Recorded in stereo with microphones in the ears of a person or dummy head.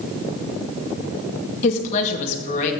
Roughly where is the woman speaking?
Left.